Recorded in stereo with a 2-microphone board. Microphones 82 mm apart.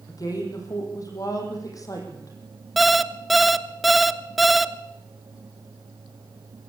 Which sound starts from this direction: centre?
An alarm clock, at 2.8 s.